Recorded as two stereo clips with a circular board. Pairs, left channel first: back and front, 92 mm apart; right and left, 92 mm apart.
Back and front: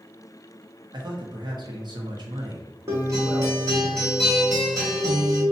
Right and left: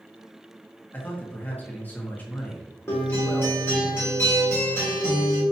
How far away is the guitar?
About 1.3 m.